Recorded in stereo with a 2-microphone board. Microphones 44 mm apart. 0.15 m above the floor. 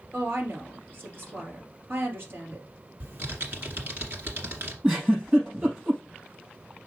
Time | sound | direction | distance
0.1 | a woman speaking | 50° right (ahead or behind) | 3 m
3.0 | typing on a keyboard | 55° right (ahead or behind) | 2.0 m
4.8 | a giggle | 25° right (ahead or behind) | 4.5 m